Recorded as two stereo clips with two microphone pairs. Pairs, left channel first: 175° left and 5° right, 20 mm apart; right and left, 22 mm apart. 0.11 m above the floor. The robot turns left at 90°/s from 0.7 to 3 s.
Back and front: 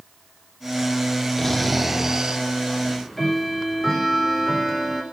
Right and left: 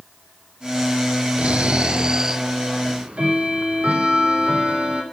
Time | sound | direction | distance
1.4 | snoring | 115° left | 0.9 m
2.8 | ticking | 110° left | 3.5 m